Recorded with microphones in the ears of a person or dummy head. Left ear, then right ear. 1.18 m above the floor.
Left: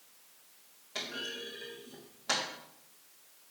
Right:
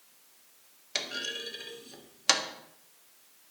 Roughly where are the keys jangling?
No keys jangling in this recording.